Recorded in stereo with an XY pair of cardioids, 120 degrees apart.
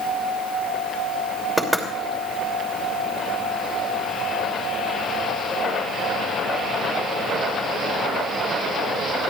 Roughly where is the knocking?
Ahead.